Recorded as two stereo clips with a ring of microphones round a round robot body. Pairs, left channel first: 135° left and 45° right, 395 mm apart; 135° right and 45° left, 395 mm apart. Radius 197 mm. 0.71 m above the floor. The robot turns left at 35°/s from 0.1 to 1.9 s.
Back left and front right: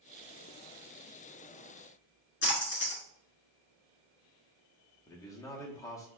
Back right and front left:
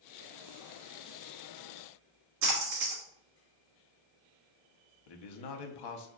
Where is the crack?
No crack in this recording.